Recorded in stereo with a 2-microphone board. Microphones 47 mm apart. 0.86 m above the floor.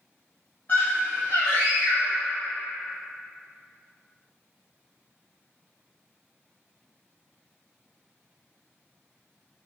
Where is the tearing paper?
I don't hear tearing paper.